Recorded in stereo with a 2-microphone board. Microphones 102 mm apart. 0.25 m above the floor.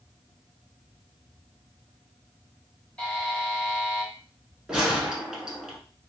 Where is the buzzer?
10° left (ahead or behind), 1.3 m.